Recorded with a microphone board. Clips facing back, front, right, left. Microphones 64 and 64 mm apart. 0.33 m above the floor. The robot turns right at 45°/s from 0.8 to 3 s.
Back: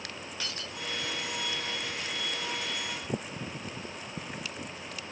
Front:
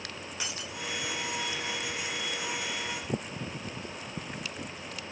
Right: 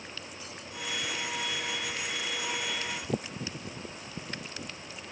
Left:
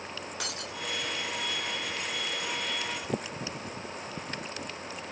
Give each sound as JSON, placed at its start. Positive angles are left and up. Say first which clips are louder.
{"t": 0.4, "sound": "breaking glass", "louder": "front 1 dB, left 6 dB", "azimuth_deg": 75}